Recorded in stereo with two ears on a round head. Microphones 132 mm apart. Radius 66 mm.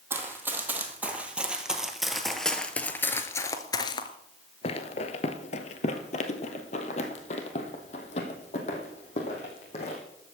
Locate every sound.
0.1 s running footsteps: 15° right (ahead or behind), 2.5 m; by 10.0 s 45° left (ahead or behind), 3.5 m